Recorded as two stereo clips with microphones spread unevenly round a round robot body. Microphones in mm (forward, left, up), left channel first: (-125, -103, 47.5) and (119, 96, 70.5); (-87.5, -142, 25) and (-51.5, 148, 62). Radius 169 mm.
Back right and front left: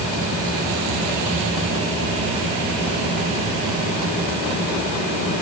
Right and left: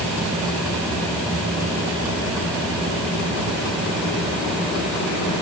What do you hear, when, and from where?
Only background noise.